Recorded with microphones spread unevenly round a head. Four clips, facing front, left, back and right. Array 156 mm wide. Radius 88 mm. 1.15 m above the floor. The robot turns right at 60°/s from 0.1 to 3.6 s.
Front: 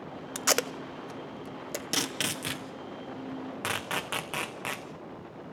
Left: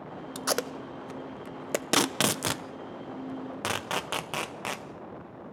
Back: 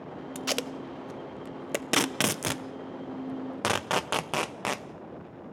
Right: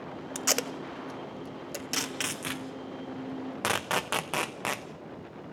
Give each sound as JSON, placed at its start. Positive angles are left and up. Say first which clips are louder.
{"t": 0.3, "sound": "tape being pulled", "louder": "left 2 dB, front 3 dB", "azimuth_deg": 10, "distance_m": 0.6}